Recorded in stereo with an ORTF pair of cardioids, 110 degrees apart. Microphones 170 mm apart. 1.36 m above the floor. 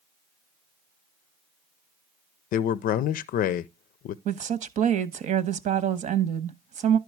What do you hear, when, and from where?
2.5 s a man speaking: 60° left, 0.5 m
4.2 s a woman speaking: 50° right, 1.1 m